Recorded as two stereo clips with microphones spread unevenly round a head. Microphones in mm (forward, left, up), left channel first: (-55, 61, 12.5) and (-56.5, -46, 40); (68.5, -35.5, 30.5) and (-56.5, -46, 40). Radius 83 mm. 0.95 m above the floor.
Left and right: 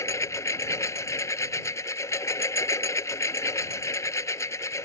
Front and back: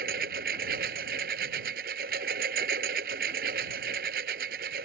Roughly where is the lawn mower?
Behind left.